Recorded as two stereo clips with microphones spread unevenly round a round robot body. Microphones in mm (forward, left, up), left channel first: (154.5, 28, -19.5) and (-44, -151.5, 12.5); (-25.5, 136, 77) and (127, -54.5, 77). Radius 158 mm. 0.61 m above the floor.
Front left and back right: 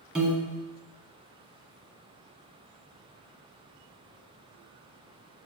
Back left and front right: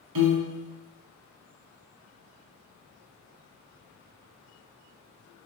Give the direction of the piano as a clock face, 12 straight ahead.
2 o'clock.